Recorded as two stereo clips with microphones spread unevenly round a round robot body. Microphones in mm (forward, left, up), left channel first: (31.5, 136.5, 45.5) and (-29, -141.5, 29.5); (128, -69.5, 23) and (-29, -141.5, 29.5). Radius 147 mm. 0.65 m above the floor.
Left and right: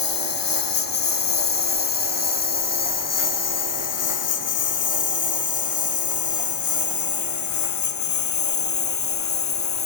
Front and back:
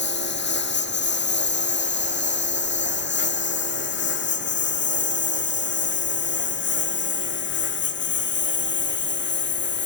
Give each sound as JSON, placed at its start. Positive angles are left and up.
{"t": 0.0, "sound": "a lawn mower", "azimuth_deg": 70}